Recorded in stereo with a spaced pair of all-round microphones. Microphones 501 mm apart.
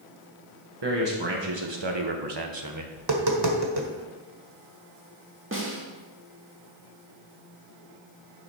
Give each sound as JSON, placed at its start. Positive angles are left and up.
{"t": 0.8, "sound": "a man speaking", "side_deg": -55, "distance_m": 1.4}
{"t": 3.0, "sound": "tapping", "side_deg": -50, "distance_m": 1.5}
{"t": 5.5, "sound": "a snare drum", "side_deg": -25, "distance_m": 1.9}